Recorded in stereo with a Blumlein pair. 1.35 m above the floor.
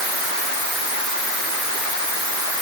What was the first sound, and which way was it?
Only background noise.